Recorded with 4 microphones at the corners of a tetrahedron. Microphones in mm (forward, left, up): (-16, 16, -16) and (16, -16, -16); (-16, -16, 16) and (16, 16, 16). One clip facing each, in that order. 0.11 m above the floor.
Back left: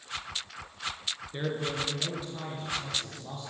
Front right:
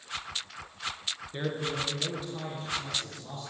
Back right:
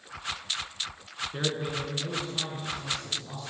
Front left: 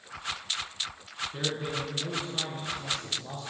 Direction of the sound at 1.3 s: 130° right.